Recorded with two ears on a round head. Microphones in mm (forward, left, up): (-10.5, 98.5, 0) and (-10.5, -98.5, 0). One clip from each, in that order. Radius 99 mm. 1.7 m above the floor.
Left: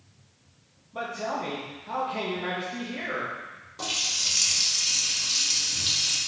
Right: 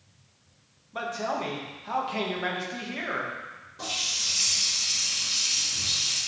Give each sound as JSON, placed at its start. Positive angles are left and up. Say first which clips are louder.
{"t": 0.9, "sound": "a man speaking", "louder": "right 1 dB", "side_deg": -35, "distance_m": 1.6}
{"t": 3.8, "sound": "a running tap", "louder": "left 2 dB", "side_deg": 40, "distance_m": 2.0}